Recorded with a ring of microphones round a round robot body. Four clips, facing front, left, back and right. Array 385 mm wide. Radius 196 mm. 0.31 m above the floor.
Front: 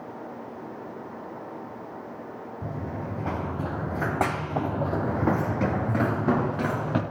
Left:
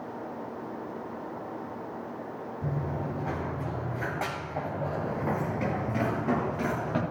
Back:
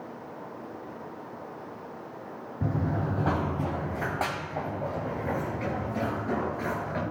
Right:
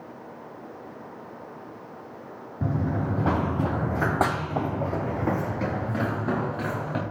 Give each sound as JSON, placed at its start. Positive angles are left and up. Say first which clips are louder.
{"t": 2.6, "sound": "running footsteps", "louder": "right 7 dB, back 5 dB", "azimuth_deg": -115, "distance_m": 2.0}